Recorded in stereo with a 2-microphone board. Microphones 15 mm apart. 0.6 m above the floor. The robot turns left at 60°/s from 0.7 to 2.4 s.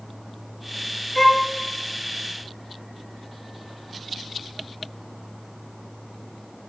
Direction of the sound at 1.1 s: 20° left (ahead or behind).